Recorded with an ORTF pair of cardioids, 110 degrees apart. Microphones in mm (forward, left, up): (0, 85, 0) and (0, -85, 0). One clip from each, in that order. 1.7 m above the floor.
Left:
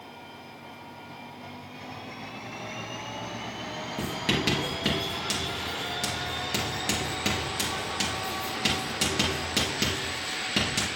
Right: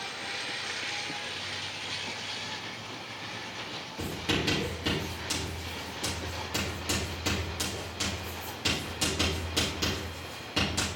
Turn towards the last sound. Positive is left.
turn(degrees=50)